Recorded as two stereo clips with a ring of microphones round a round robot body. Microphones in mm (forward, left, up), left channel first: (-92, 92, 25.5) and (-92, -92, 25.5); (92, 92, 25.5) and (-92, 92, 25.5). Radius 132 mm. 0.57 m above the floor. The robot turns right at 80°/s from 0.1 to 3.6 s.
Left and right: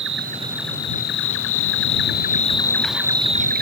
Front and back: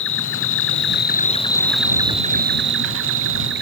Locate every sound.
0.0 s an insect: 45° right; by 3.6 s 125° right